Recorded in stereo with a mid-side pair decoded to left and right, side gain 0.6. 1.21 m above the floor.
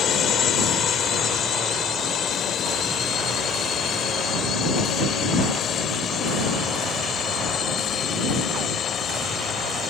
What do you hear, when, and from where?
0.0 s a drone: 45° left; by 9.9 s 35° left